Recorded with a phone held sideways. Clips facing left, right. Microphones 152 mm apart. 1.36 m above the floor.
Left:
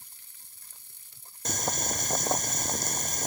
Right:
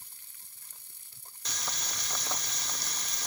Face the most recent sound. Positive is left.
turn(degrees=45)  # may be behind; listen again after turning